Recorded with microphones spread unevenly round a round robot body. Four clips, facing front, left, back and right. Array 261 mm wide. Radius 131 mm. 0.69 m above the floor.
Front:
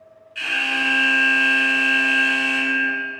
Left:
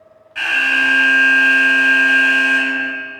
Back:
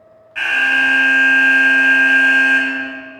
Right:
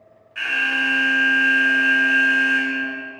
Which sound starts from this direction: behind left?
An alarm, at 0.3 s.